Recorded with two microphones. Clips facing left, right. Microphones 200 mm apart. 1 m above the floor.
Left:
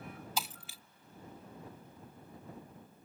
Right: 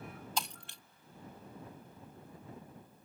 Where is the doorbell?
I don't hear a doorbell.